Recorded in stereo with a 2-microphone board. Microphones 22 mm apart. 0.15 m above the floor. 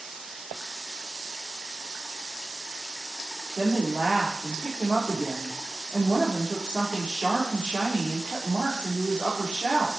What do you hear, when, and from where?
3.6 s a woman speaking: 65° right (ahead or behind), 5 m